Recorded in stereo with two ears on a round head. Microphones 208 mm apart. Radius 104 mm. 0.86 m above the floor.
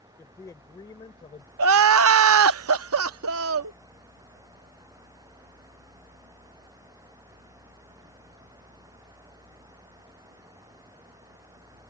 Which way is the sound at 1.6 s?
70° right (ahead or behind).